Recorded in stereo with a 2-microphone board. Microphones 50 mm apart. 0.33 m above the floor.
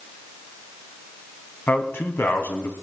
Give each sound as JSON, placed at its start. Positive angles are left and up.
{"t": 1.7, "sound": "a man speaking", "side_deg": 50, "distance_m": 2.5}